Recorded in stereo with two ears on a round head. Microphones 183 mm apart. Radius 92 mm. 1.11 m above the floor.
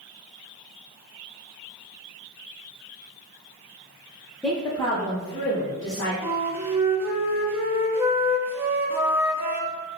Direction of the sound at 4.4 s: 5° left (ahead or behind).